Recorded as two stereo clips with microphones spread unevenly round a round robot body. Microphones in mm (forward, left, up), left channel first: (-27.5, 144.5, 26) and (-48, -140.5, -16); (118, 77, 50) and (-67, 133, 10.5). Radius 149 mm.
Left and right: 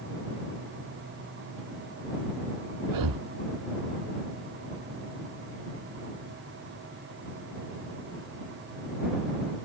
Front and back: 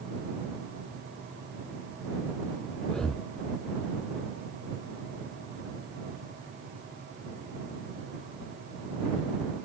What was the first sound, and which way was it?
Breathing, 105° right.